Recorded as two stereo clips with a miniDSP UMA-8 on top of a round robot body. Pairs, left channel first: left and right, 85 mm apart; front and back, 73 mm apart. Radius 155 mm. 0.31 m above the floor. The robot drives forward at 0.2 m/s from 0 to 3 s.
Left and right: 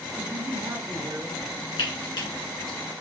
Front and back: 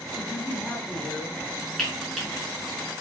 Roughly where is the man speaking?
Right.